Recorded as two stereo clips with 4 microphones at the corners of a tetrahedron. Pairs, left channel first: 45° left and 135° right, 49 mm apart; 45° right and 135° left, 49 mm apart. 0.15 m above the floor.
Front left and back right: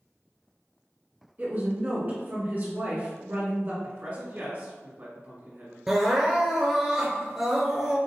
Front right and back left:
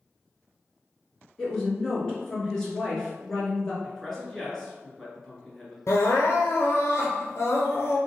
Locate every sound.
1.4 s a woman speaking: 120° right, 1.8 m
3.8 s a man speaking: 130° right, 1.7 m
5.9 s crying: 55° right, 1.0 m